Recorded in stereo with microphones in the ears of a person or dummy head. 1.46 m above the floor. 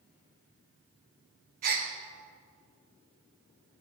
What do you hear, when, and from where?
1.6 s a gasp: 45° right (ahead or behind), 0.8 m